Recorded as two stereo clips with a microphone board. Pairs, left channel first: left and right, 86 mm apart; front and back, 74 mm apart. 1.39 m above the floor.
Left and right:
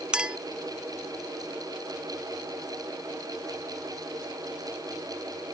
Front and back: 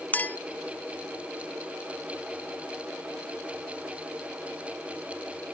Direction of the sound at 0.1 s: 25° right.